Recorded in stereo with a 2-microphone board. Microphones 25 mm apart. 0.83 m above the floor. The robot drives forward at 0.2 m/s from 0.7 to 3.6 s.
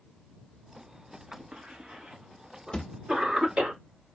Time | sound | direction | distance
1.3 | a cough | 45° right (ahead or behind) | 1.6 m
2.7 | a thud | 35° left (ahead or behind) | 1.1 m